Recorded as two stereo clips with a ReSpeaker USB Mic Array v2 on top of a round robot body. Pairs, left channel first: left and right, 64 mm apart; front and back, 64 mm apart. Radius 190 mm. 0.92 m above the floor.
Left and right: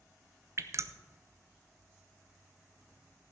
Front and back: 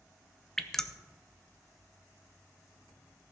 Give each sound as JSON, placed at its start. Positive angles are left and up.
{"t": 0.6, "sound": "dripping", "azimuth_deg": -80, "distance_m": 1.0}